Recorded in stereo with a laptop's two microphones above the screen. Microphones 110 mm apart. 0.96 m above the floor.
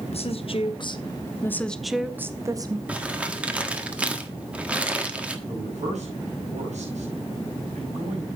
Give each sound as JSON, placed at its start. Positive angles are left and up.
{"t": 0.1, "sound": "a woman speaking", "side_deg": 60, "distance_m": 1.3}
{"t": 2.9, "sound": "crumpling", "side_deg": -10, "distance_m": 1.4}
{"t": 5.5, "sound": "a man speaking", "side_deg": -80, "distance_m": 6.0}